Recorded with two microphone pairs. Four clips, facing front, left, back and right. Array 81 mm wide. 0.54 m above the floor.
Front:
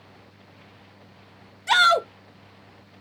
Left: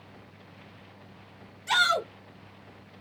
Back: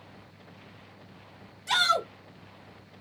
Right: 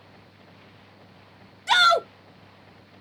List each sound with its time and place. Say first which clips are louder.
1.7 s a shout: right 6 dB, front 7 dB; 35° right, 1.4 m